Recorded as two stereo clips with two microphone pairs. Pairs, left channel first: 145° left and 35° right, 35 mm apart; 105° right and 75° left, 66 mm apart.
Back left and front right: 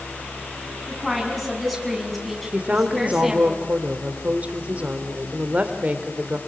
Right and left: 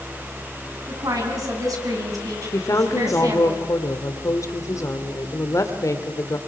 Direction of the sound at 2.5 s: 80° right.